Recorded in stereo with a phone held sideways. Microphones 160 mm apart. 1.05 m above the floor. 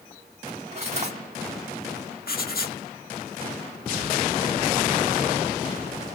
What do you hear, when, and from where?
0.5 s cutlery clinking: 45° right (ahead or behind), 2.5 m
2.3 s writing: 70° left (ahead or behind), 1.4 m